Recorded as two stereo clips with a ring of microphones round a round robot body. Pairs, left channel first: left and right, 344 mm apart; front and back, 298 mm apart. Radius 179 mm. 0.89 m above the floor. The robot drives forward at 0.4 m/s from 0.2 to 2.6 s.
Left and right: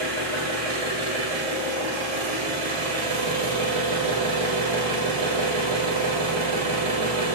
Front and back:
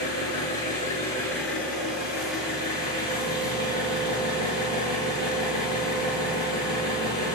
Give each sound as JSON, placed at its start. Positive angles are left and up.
{"t": 0.0, "sound": "an engine running", "azimuth_deg": -65, "distance_m": 1.5}